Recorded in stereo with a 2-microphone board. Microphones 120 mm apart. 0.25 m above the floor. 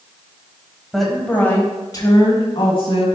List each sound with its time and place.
0.9 s a woman speaking: 5° right (ahead or behind), 1.5 m; by 3.1 s 55° left (ahead or behind), 2.5 m